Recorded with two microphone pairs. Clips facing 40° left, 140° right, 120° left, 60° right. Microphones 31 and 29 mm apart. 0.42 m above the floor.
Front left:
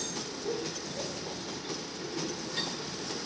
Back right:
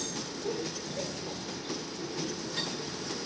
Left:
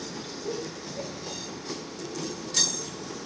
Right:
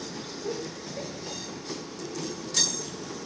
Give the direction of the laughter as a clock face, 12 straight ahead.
3 o'clock.